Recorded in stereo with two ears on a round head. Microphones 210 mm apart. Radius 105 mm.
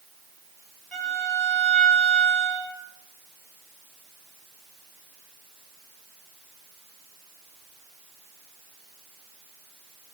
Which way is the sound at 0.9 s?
5° right (ahead or behind).